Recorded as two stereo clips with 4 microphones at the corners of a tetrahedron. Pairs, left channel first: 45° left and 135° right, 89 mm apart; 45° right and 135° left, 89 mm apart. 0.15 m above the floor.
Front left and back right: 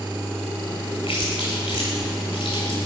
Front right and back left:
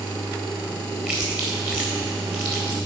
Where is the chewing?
60° left, 2 m.